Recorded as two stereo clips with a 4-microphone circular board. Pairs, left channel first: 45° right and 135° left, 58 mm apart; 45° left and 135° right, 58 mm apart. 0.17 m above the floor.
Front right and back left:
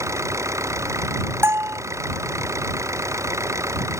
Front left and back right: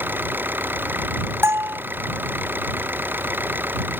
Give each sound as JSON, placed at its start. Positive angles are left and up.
{"t": 0.0, "sound": "an engine running", "azimuth_deg": 170}
{"t": 1.4, "sound": "a bell", "azimuth_deg": 180}